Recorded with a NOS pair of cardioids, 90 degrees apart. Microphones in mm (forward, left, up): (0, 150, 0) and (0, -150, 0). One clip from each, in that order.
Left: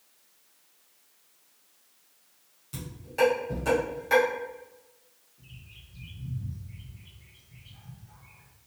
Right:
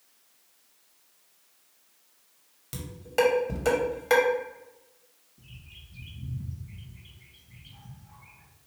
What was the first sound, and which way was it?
Dishes clattering, 70° right.